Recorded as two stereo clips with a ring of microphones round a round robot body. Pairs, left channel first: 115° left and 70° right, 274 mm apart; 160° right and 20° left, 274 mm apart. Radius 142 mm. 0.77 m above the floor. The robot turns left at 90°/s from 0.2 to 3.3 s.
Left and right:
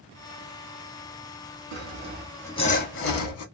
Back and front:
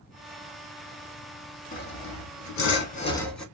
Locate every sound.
1.7 s sawing: 100° right, 1.2 m; by 3.4 s 115° left, 1.2 m